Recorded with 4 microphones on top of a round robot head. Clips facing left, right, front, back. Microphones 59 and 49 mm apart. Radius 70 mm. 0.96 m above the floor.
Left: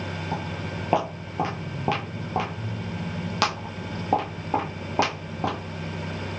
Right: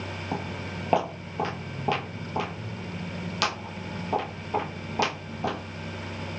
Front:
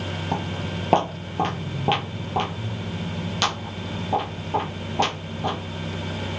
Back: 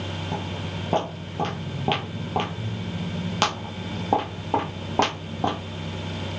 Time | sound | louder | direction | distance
0.3 | footsteps | even, front 5 dB | 10° right | 1.2 m